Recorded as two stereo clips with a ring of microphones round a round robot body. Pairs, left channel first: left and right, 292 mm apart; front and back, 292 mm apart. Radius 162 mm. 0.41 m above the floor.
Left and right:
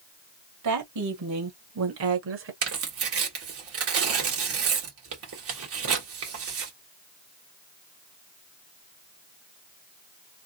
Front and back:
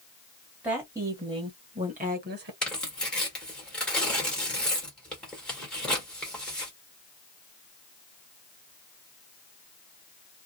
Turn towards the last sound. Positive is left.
turn(degrees=-85)